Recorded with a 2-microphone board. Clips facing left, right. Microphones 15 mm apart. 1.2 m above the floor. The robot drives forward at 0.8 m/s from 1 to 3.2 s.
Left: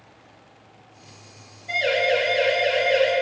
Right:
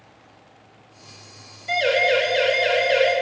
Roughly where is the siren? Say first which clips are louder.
Right 2 dB; right.